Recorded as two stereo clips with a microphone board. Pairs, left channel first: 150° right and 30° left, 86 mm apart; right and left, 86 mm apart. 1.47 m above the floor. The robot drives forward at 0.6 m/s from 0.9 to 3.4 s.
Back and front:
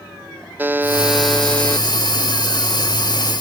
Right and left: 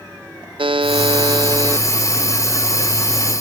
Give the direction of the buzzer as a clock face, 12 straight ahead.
9 o'clock.